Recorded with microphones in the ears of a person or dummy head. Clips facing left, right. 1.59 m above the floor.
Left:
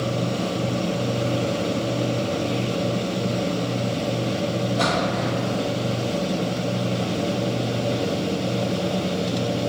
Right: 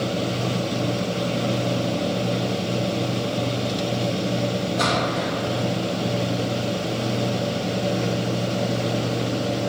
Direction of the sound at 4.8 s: 30° right (ahead or behind).